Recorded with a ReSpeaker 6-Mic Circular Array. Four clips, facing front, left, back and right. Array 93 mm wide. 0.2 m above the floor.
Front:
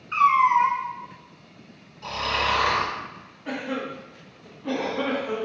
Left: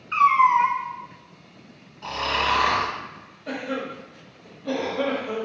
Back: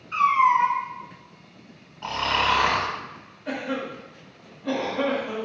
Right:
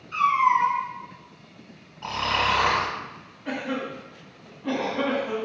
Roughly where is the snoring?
Behind right.